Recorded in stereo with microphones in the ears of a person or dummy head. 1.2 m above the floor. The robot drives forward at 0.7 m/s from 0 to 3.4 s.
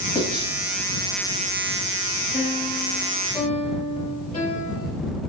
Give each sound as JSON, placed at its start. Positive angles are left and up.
{"t": 0.1, "sound": "writing", "side_deg": 25, "distance_m": 2.0}
{"t": 2.3, "sound": "a piano", "side_deg": 45, "distance_m": 3.0}